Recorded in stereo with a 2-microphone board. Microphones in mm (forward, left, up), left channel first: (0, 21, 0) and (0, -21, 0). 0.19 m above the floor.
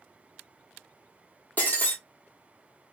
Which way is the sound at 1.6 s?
40° left (ahead or behind).